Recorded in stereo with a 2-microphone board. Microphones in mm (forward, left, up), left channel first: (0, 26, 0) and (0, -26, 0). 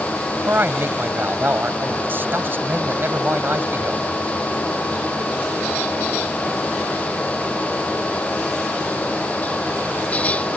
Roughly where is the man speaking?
Right.